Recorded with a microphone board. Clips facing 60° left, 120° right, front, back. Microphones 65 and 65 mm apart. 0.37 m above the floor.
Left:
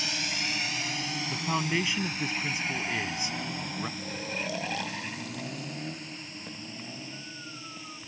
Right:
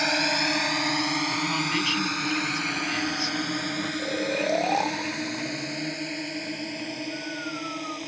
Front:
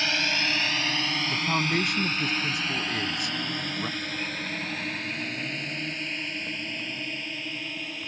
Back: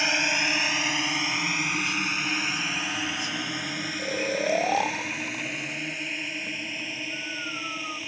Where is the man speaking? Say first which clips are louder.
Right 3 dB, front 2 dB; 10° right.